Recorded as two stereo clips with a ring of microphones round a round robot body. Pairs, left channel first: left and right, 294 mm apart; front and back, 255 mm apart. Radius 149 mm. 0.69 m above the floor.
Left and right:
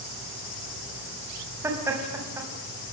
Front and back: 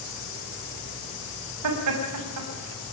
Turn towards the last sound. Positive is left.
turn(degrees=-170)